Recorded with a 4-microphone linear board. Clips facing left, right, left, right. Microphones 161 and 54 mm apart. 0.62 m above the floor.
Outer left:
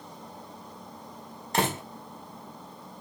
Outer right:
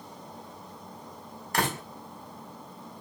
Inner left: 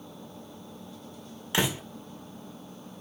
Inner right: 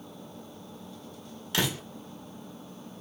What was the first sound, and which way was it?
A door slam, 25° left (ahead or behind).